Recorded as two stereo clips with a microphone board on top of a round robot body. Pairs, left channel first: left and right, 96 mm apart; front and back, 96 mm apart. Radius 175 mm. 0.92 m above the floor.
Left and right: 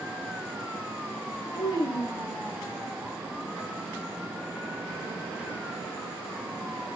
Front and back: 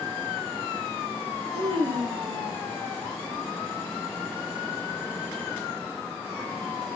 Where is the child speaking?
145° left, 0.6 m; by 2.6 s 100° left, 1.2 m.